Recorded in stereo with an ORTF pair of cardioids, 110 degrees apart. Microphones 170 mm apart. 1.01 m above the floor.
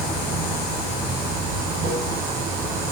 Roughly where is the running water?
Ahead right.